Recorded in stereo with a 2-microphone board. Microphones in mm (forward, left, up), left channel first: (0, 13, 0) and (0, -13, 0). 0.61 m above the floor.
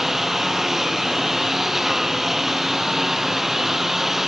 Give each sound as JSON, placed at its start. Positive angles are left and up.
{"t": 0.0, "sound": "a lawn mower", "side_deg": -10}